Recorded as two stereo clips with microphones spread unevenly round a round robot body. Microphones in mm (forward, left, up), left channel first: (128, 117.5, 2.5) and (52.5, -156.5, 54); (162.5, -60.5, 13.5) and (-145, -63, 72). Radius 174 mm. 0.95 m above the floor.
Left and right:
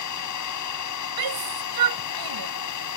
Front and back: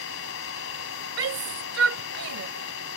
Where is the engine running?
55° left.